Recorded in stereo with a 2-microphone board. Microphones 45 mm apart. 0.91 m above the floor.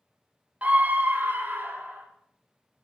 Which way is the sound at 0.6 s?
30° right (ahead or behind).